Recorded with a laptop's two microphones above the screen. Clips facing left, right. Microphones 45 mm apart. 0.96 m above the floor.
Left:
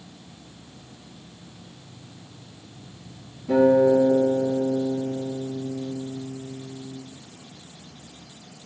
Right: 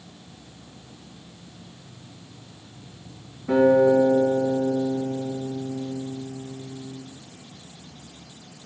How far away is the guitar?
About 4 m.